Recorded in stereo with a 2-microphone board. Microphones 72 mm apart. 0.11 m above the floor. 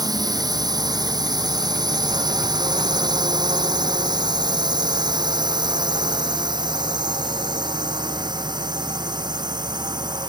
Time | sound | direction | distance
0.0 | a drone | 65° right (ahead or behind) | ?